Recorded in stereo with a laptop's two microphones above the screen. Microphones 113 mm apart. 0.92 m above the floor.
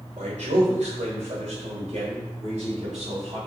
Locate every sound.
0.2 s a man speaking: 85° right, 2.5 m; by 3.4 s 75° right (ahead or behind), 4.5 m